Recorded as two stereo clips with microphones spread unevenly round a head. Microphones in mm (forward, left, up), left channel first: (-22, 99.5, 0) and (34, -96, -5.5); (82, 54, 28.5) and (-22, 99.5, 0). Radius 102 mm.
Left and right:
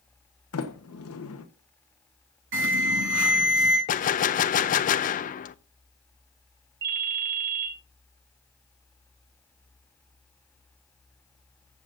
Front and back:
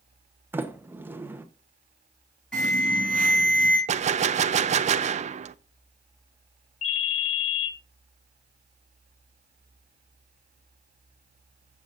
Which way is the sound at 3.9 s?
145° left.